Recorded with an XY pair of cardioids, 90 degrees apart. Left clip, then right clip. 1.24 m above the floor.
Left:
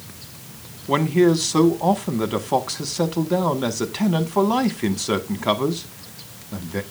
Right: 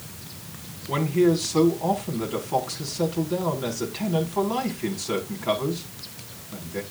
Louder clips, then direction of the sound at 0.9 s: Left 4 dB; 65° left.